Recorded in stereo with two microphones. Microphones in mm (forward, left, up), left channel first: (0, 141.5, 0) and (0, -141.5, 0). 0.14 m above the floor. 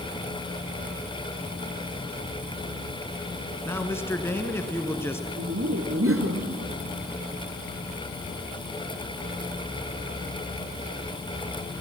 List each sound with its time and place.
3.6 s a man speaking: 10° left (ahead or behind), 1.4 m
5.4 s laughter: 55° right (ahead or behind), 2 m